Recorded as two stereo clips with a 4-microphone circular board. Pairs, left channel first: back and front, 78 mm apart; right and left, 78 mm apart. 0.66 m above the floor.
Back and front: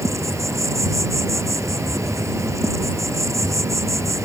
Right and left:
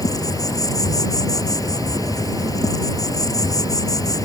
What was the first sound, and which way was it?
An insect, 50° right.